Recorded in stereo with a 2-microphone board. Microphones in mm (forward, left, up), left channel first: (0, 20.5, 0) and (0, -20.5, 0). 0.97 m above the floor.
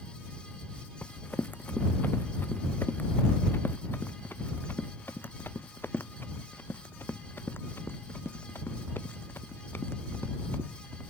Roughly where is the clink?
No clink in this recording.